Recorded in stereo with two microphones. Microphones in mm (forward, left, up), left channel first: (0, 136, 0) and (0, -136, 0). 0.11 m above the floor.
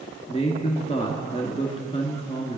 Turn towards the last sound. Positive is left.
turn(degrees=20)  # may be behind; listen again after turning